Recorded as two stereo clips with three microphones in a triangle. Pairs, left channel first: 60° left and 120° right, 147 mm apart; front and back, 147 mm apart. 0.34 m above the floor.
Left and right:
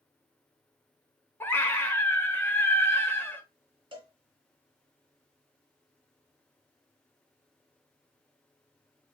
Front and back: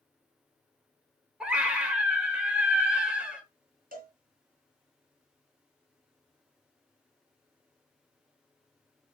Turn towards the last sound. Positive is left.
turn(degrees=-175)